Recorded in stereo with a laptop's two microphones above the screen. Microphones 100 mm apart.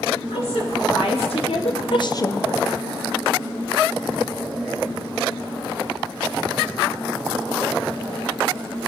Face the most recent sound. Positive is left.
turn(degrees=10)  # may be behind; listen again after turning